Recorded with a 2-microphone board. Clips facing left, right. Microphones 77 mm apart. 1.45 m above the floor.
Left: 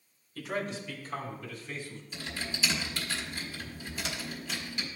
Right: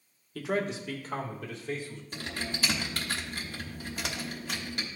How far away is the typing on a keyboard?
About 1.2 m.